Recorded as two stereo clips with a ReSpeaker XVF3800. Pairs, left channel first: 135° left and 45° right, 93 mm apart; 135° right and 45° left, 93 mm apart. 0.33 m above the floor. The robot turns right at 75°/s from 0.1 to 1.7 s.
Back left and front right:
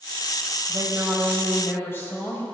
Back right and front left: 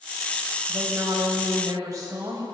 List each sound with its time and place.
0.7 s a woman speaking: 5° left, 1.7 m; by 2.5 s 80° left, 1.7 m